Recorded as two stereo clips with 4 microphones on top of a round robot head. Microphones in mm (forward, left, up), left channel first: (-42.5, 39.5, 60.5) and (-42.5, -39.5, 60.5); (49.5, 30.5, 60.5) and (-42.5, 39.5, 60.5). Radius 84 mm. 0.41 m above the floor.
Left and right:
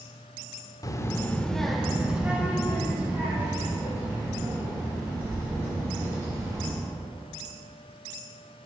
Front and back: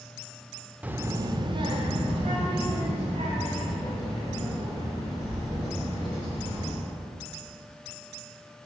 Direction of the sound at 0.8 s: 105° left.